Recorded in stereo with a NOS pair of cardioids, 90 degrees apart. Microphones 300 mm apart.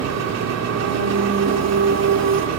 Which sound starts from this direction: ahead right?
An engine running, at 0.0 s.